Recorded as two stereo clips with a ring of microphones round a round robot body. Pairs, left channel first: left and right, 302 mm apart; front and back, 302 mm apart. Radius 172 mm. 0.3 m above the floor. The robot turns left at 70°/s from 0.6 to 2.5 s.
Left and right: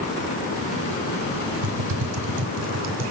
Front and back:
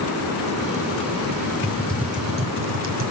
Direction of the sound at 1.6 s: 70° right.